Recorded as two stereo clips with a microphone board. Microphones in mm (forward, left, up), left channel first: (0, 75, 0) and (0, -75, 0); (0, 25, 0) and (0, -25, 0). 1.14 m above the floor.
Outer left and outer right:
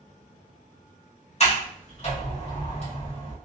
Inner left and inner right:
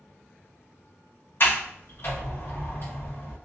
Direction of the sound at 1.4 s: 50° left (ahead or behind).